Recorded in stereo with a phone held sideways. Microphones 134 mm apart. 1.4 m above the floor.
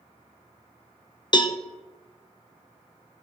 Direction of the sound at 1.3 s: 35° left (ahead or behind).